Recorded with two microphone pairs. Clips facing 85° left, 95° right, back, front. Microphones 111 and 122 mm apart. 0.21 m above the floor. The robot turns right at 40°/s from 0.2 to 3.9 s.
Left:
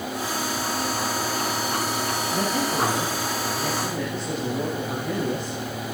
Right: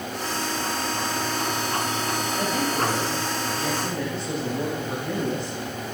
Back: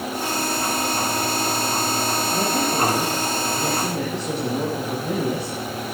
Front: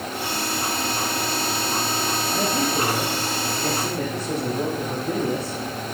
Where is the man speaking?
105° left, 6.5 m; by 5.6 s 170° left, 6.5 m.